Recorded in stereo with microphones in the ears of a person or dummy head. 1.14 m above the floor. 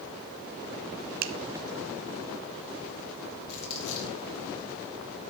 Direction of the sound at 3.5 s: 60° left (ahead or behind).